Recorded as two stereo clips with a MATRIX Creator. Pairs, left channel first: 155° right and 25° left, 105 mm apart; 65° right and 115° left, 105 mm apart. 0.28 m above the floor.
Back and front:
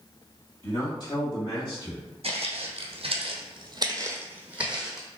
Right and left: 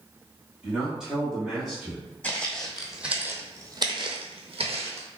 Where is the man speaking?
165° right, 1.9 m; by 2.1 s 160° right, 2.5 m.